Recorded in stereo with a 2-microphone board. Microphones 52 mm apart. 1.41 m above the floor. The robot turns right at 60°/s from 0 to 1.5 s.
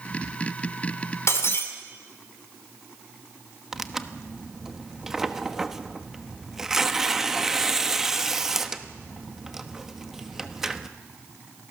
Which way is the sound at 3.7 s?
10° right (ahead or behind).